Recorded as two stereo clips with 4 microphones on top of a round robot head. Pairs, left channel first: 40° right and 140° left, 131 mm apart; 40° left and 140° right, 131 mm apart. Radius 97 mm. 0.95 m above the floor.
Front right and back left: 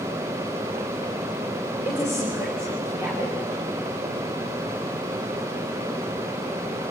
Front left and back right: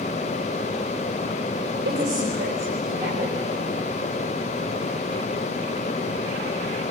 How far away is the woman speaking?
About 4 m.